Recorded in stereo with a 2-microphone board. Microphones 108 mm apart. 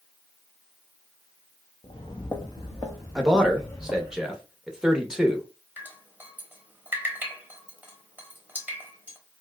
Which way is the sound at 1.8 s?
50° left (ahead or behind).